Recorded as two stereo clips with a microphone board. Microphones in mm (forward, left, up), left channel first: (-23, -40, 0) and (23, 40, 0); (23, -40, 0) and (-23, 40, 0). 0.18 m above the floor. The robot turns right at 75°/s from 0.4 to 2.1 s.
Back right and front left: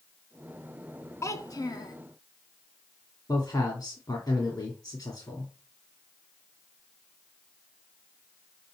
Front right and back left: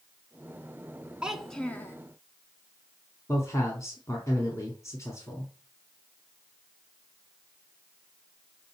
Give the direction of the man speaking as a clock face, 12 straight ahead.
3 o'clock.